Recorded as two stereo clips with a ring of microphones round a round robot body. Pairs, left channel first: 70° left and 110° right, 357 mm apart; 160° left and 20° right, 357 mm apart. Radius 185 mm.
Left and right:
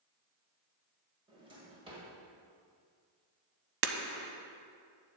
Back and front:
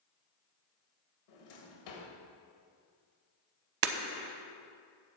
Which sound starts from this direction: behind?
A drawer, at 1.3 s.